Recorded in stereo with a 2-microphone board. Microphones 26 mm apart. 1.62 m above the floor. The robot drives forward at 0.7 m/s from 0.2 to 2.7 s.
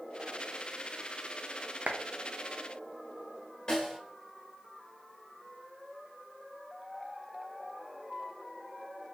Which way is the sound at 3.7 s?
30° left (ahead or behind).